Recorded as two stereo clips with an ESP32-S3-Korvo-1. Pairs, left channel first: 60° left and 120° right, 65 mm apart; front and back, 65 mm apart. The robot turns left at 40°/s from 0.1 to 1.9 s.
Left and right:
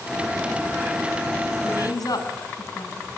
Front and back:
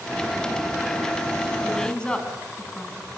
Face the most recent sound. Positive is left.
turn(degrees=75)